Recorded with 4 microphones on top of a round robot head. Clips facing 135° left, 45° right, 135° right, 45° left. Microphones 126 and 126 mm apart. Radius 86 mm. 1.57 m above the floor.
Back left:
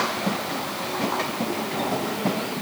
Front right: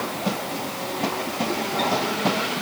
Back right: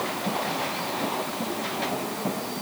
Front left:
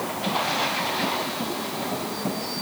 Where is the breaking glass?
No breaking glass in this recording.